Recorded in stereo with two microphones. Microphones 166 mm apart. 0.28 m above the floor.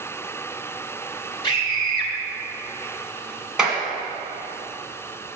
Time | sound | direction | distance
1.4 | a scream | 30° left (ahead or behind) | 1.7 m
3.6 | a clap | 5° right (ahead or behind) | 1.9 m